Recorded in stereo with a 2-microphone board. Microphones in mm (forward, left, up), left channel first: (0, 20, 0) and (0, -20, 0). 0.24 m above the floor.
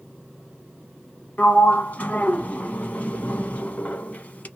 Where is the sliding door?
35° left (ahead or behind), 0.6 m.